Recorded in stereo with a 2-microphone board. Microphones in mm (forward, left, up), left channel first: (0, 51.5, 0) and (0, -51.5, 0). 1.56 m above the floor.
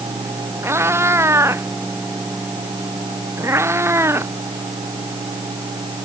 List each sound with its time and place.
0.6 s a cat meowing: 25° right (ahead or behind)